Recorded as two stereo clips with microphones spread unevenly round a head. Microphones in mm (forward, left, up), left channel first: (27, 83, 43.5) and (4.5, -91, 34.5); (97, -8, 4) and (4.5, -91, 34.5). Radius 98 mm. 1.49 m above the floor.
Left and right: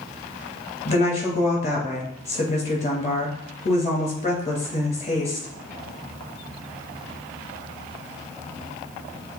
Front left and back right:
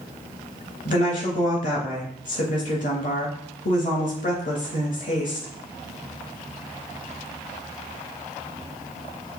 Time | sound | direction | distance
0.8 | a woman speaking | 30° left | 2 m